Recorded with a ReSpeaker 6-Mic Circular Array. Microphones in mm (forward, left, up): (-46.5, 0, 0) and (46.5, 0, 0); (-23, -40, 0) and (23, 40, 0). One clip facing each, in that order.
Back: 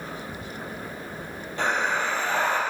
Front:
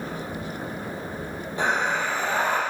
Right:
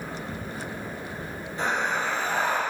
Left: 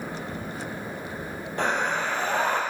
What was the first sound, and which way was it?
Breathing, 75° left.